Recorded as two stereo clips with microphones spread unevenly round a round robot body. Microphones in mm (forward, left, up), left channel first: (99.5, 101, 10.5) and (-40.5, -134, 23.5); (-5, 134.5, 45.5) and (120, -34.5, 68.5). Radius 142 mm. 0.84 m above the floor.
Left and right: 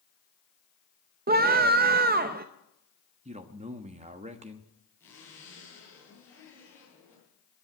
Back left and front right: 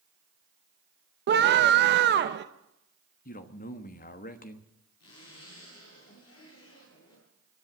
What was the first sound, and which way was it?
A scream, 70° right.